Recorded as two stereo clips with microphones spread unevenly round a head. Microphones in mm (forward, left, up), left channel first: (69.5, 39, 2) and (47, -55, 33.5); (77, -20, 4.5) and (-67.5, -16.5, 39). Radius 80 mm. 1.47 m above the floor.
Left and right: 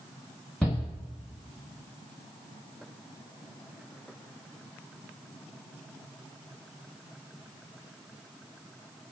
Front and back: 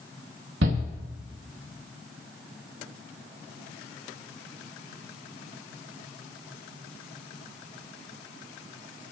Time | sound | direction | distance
0.6 | a shout | 165° left | 1.9 m